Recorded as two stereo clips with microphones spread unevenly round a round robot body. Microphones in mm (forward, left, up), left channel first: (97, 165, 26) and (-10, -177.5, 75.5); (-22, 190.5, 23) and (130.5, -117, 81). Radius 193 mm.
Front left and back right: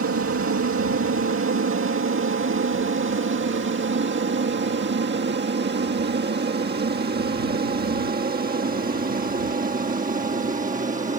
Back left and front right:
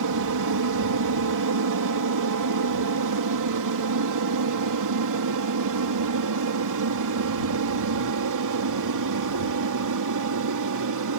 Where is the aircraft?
65° right; by 11.2 s 35° right.